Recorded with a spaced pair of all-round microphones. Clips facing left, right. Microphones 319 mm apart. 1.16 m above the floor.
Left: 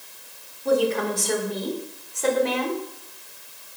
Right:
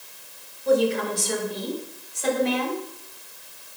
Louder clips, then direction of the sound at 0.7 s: Right 1 dB; 75° left (ahead or behind).